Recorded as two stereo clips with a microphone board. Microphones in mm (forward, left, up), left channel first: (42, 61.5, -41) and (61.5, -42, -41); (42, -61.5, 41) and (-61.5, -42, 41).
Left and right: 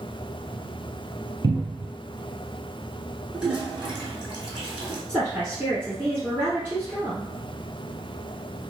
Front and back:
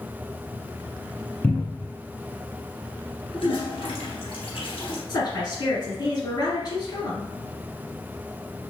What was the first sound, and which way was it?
A cupboard door, 75° right.